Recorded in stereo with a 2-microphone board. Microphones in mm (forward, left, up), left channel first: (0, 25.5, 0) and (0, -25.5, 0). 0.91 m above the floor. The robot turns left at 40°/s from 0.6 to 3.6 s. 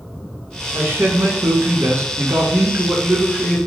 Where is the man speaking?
60° right, 1.0 m; by 3.6 s 175° right, 1.0 m.